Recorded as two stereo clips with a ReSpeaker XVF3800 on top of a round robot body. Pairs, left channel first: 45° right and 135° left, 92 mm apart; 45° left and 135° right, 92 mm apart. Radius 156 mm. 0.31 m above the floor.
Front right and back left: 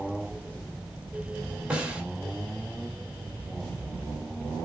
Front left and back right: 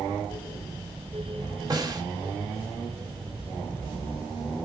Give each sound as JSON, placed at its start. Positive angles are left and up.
{"t": 1.7, "sound": "a snare drum", "azimuth_deg": -150, "distance_m": 1.7}